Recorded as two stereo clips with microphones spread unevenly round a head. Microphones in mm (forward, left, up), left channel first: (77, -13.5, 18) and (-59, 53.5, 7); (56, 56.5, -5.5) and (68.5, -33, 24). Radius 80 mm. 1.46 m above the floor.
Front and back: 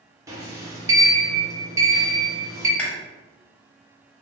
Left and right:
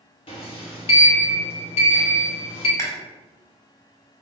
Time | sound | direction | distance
0.3 | a sliding door | 80° left | 0.9 m
2.8 | chewing | 40° left | 1.4 m